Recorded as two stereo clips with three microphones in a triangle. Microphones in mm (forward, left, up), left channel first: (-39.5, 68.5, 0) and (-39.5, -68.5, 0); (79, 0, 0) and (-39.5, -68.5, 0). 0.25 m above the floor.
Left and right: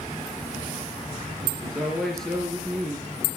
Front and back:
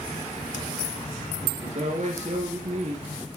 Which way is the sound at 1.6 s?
Straight behind.